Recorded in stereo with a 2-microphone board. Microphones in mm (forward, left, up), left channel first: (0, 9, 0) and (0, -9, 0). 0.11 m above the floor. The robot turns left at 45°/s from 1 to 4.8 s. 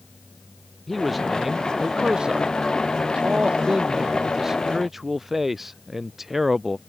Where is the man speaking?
Straight ahead; by 6.8 s 170° right.